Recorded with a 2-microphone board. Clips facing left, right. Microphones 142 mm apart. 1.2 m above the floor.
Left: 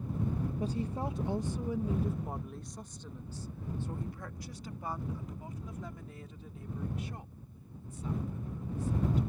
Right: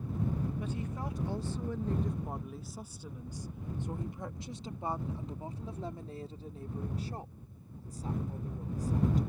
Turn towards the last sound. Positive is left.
turn(degrees=-40)  # may be behind; listen again after turning